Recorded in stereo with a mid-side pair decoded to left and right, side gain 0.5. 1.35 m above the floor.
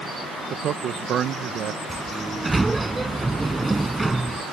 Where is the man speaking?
60° right.